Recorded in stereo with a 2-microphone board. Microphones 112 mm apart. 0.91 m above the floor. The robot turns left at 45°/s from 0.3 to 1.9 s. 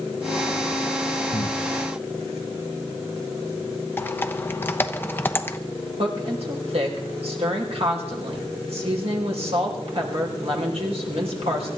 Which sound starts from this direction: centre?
Typing on a keyboard, at 4.0 s.